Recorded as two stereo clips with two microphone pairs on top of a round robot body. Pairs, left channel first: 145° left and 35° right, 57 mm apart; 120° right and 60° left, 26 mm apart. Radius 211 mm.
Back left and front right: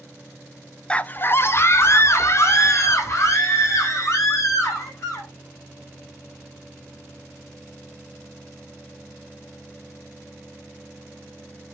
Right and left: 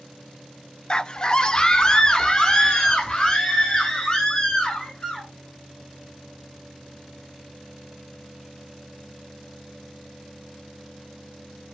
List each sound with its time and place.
0.9 s a scream: 160° right, 0.8 m; by 5.3 s 170° left, 7 m